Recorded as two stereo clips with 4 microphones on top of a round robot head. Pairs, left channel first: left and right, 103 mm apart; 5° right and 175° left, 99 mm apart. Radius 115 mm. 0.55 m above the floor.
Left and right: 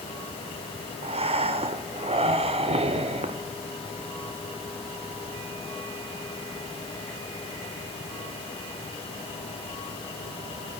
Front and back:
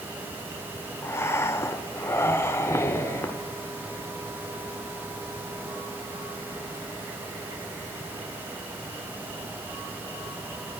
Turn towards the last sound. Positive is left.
turn(degrees=-70)